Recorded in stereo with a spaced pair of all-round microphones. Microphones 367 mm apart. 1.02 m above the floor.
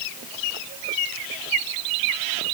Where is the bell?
I don't hear a bell.